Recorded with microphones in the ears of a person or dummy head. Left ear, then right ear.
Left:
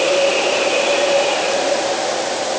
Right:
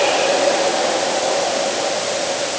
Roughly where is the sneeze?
I don't hear a sneeze.